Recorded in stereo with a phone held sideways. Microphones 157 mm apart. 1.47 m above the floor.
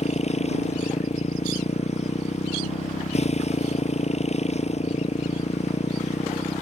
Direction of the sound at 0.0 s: 45° left (ahead or behind).